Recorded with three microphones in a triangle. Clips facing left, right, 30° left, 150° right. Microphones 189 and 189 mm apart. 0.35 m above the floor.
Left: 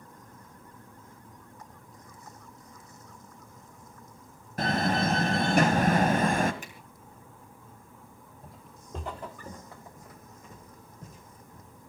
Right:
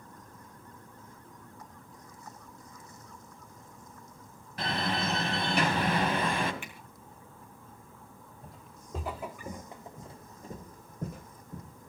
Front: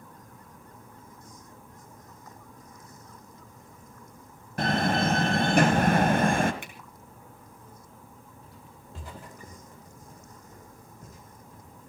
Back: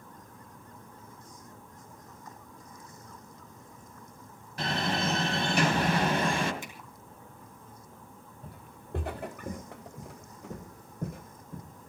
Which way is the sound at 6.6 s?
45° left.